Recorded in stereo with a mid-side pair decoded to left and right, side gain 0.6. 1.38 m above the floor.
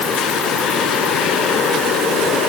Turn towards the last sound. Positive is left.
No sound to turn to.